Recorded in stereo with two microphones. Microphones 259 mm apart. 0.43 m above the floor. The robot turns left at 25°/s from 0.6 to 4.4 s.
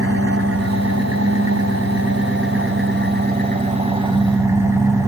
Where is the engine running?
75° right, 3 m; by 5.1 s 170° right, 3 m.